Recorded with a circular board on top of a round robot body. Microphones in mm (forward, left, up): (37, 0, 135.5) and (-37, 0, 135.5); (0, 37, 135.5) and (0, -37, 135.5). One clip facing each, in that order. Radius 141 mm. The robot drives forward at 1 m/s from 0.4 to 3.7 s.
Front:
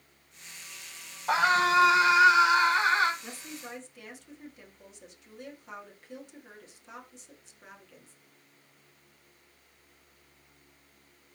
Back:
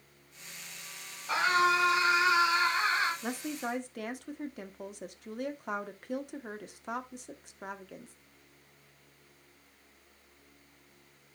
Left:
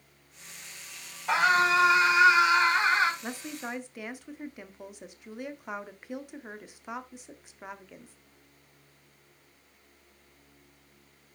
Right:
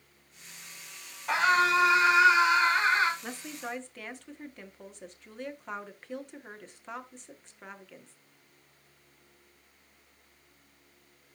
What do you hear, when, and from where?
1.3 s a scream: 10° left, 6 m
3.2 s a woman speaking: 165° left, 1.4 m; by 8.2 s 170° left, 1.8 m